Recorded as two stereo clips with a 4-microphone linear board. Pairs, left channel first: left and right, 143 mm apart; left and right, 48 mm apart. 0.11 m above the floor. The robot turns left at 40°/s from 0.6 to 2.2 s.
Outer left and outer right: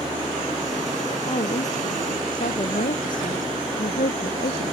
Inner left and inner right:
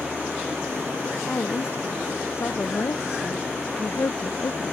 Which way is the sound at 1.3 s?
135° left.